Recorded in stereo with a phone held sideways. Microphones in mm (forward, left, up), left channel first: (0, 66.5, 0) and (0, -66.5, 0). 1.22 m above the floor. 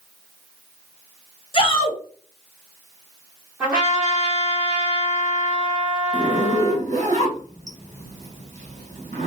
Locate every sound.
1.5 s a shout: 40° left (ahead or behind), 0.7 m
3.6 s a trumpet: 5° right (ahead or behind), 1.6 m
6.1 s a zipper: 60° right (ahead or behind), 1.1 m